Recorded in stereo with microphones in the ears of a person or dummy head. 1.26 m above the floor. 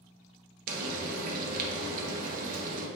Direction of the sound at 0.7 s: 50° right (ahead or behind).